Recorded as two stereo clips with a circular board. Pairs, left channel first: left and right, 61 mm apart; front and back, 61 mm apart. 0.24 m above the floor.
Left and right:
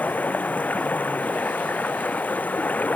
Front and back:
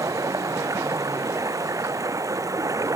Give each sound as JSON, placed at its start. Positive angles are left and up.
{"t": 0.0, "sound": "running water", "azimuth_deg": 155}